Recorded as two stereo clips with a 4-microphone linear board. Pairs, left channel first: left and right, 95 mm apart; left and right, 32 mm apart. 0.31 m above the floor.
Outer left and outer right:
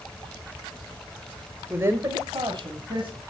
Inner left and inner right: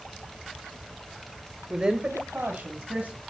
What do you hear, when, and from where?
1.7 s a woman speaking: 15° right (ahead or behind), 1.1 m; by 3.2 s 65° right (ahead or behind), 3 m